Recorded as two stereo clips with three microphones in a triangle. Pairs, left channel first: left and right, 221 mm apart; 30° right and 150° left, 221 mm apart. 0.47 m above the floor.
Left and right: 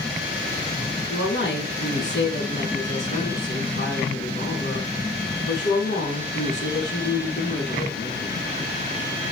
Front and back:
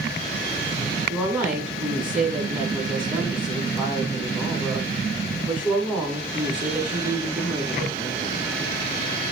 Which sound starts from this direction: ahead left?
A woman speaking, at 1.1 s.